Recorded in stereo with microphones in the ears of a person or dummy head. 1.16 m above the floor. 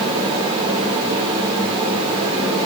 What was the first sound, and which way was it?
A fan, 25° right (ahead or behind).